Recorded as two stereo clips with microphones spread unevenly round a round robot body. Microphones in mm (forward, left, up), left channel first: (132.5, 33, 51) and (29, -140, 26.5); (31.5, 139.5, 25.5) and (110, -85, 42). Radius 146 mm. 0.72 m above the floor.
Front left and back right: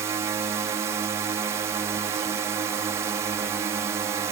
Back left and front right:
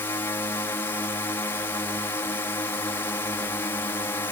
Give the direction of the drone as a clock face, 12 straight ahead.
6 o'clock.